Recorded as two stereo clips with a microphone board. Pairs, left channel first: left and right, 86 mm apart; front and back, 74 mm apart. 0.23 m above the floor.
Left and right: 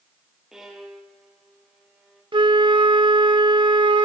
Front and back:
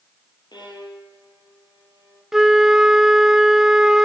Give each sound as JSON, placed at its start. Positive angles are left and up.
{"t": 0.5, "sound": "a violin", "azimuth_deg": -5, "distance_m": 3.5}
{"t": 2.3, "sound": "a flute", "azimuth_deg": -95, "distance_m": 0.6}